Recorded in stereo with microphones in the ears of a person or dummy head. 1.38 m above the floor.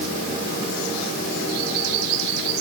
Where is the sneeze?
I don't hear a sneeze.